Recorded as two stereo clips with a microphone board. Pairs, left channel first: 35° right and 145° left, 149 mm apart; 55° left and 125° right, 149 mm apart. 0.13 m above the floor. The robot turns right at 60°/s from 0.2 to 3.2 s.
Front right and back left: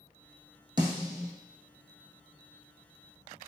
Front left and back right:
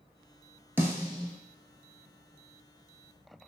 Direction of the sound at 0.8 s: 170° left.